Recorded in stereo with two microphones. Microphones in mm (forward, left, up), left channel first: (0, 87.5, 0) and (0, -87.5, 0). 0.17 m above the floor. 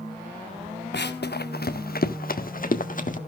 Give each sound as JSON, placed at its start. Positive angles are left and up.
{"t": 0.9, "sound": "running footsteps", "side_deg": 75, "distance_m": 0.8}